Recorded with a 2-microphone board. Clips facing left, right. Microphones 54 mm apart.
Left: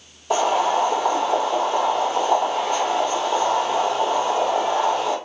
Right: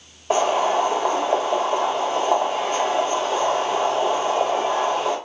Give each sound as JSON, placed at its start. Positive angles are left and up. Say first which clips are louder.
{"t": 0.3, "sound": "boiling", "louder": "even", "side_deg": -35, "distance_m": 1.4}